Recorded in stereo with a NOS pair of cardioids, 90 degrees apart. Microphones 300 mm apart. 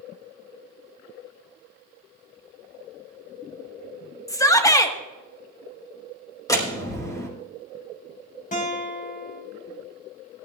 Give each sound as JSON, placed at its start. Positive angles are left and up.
{"t": 4.3, "sound": "a shout", "azimuth_deg": 10, "distance_m": 1.6}
{"t": 6.5, "sound": "a door slam", "azimuth_deg": 10, "distance_m": 5.0}
{"t": 8.5, "sound": "a guitar", "azimuth_deg": 25, "distance_m": 4.0}